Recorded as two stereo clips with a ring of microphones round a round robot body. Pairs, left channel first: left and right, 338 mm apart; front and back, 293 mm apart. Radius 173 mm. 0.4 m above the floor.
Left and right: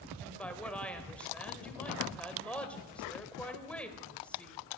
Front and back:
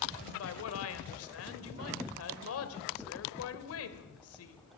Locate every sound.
0.2 s a woman speaking: 5° left, 2 m